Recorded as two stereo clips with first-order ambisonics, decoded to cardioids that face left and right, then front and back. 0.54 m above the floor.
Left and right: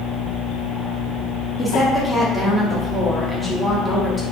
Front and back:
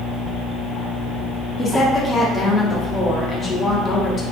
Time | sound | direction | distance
1.6 | a woman speaking | 20° left | 0.6 m